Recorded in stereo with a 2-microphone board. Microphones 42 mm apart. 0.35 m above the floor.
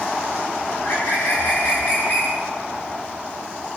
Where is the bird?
55° left (ahead or behind), 8.5 m.